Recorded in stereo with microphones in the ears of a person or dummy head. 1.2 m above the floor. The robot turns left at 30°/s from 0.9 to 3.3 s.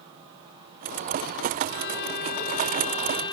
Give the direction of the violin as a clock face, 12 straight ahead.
9 o'clock.